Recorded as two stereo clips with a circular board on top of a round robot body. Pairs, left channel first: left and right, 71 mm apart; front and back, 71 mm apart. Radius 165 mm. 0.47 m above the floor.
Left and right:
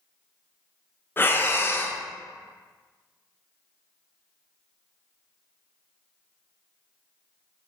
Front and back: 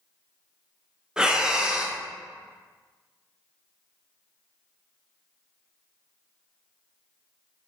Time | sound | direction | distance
1.2 | breathing | 110° left | 0.6 m